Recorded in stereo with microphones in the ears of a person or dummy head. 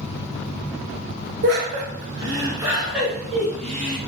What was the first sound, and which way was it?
Laughter, 60° right (ahead or behind).